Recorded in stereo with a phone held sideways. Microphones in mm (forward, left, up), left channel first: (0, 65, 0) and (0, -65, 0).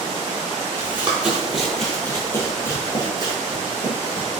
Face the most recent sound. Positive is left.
turn(degrees=45)  # may be behind; listen again after turning